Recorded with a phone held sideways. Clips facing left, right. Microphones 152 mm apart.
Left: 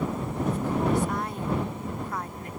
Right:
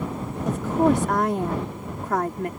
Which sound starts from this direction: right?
A woman speaking, at 0.5 s.